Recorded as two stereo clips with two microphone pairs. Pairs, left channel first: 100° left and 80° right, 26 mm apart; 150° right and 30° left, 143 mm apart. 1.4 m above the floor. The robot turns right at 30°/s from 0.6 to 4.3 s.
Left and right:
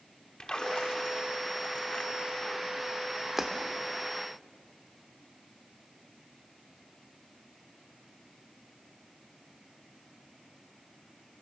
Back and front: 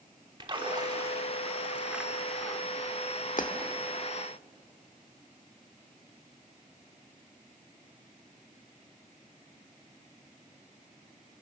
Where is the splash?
65° left, 1.2 m; by 2.6 s 125° left, 1.2 m.